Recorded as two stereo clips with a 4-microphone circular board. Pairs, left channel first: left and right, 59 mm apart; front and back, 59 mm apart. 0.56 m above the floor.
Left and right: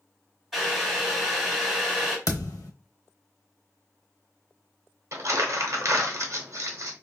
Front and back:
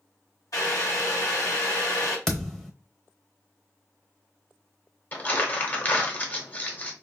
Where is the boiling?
5° right, 2 m.